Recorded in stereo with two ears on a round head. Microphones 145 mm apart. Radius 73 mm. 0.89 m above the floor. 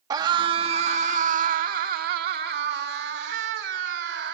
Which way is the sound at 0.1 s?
25° right (ahead or behind).